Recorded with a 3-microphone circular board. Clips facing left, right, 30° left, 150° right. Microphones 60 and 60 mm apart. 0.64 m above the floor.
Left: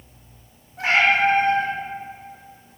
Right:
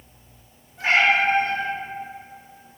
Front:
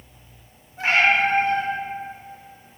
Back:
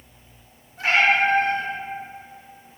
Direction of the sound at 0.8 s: 95° left.